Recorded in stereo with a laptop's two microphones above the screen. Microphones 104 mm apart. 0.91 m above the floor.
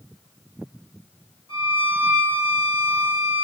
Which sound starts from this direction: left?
A violin, at 1.5 s.